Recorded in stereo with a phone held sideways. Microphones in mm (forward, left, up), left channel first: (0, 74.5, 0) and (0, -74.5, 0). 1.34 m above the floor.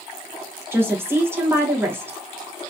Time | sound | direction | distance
0.7 | a woman speaking | 15° right (ahead or behind) | 1.1 m